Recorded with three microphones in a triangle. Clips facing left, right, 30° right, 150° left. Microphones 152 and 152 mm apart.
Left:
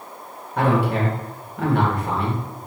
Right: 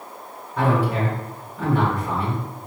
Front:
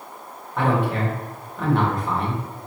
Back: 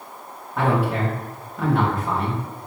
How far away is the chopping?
I don't hear chopping.